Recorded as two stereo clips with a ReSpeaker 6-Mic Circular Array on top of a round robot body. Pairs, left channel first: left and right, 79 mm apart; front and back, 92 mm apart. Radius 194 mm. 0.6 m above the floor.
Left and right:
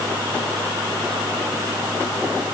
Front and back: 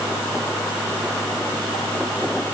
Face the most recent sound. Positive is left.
No sound to turn to.